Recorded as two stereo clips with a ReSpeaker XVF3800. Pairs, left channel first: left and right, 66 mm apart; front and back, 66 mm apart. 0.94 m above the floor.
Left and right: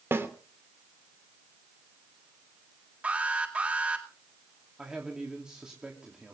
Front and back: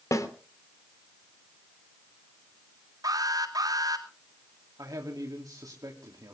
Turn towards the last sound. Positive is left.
turn(degrees=-165)